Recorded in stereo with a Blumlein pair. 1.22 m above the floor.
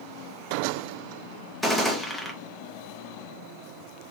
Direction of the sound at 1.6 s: 5° left.